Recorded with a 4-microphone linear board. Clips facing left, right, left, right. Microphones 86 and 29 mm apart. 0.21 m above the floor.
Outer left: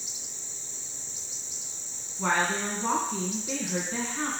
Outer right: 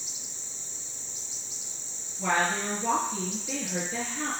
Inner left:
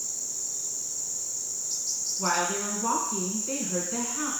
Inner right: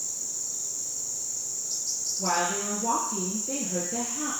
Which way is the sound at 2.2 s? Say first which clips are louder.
Even, even; 55° left (ahead or behind).